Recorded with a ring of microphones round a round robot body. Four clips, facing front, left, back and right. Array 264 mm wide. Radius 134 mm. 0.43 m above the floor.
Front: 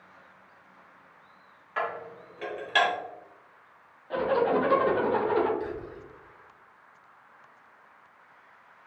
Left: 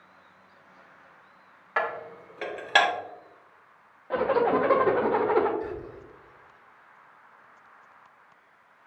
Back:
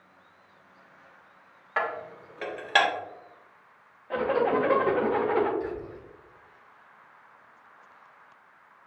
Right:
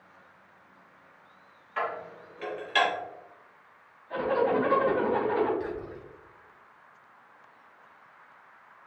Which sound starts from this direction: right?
Whispering, at 5.6 s.